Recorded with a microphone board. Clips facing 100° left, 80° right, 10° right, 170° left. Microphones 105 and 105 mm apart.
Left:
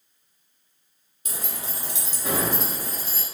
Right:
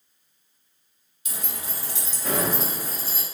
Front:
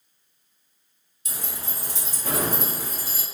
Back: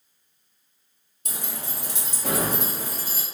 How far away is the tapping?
I don't hear tapping.